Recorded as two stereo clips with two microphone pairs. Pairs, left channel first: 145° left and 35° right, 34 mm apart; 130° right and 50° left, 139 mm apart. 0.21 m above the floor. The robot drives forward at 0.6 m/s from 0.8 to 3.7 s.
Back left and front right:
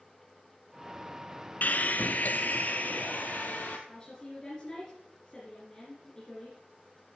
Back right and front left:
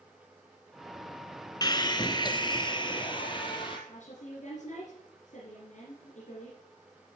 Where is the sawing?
175° left, 0.6 m; by 3.8 s straight behind, 1.9 m.